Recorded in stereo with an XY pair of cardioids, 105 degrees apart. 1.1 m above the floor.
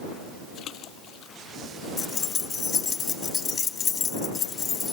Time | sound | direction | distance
0.6 | a splash | 70° left | ?
2.0 | keys jangling | 45° left | ?